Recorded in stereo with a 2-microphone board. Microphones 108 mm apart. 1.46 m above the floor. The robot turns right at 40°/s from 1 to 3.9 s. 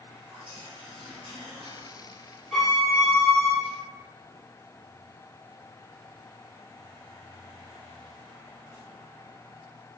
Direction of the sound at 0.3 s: 115° right.